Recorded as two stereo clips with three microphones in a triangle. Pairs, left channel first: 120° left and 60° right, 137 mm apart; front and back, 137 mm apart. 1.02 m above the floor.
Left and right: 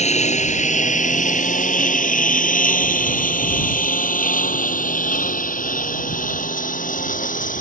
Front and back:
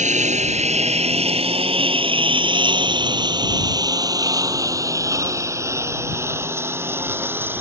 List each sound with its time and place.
0.0 s a lawn mower: 155° left; by 7.6 s 105° left